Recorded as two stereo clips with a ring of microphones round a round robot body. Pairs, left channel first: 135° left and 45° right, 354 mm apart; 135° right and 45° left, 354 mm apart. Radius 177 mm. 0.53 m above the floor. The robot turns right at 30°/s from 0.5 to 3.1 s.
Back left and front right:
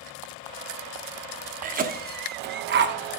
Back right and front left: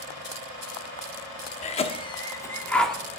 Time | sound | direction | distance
1.6 | a cough | 85° right | 0.7 m